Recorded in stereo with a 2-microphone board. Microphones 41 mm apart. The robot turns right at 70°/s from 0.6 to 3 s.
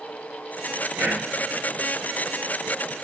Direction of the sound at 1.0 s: 50° right (ahead or behind).